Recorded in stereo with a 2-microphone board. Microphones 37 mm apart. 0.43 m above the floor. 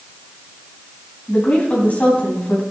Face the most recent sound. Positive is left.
turn(degrees=40)  # may be behind; listen again after turning